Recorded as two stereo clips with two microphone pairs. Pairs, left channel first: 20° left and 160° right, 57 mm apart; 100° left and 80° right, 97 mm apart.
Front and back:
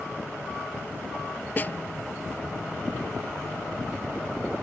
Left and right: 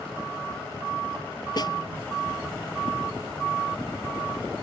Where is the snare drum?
70° left.